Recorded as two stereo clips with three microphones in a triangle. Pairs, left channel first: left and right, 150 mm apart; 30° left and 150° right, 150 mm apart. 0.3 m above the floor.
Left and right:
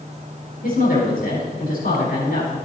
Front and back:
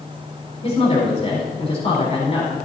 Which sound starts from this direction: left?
A woman speaking, at 0.6 s.